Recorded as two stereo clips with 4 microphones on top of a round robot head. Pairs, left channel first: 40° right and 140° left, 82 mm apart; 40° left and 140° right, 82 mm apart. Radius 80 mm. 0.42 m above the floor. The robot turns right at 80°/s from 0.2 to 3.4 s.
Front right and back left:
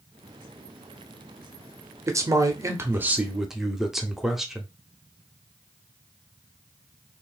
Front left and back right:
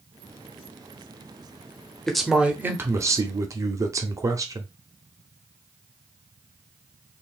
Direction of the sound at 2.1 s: 115° left.